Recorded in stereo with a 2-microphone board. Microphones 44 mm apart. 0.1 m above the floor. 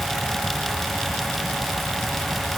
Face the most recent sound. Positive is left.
No sound to turn to.